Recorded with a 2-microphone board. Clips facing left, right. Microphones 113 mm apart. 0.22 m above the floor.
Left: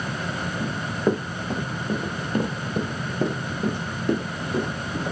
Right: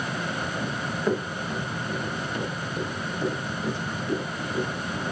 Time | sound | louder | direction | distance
0.6 | running footsteps | left 5 dB | 15° left (ahead or behind) | 1.9 m